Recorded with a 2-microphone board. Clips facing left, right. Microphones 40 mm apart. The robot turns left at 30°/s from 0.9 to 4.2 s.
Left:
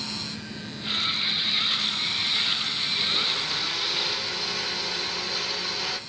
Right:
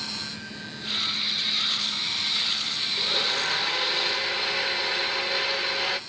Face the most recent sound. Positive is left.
turn(degrees=-125)